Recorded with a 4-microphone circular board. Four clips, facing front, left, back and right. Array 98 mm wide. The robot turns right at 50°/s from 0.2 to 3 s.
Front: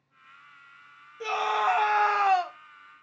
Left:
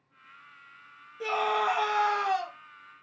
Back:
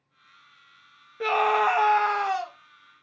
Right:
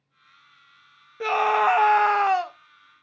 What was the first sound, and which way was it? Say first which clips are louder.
A scream: right 7 dB, back 4 dB; 125° right.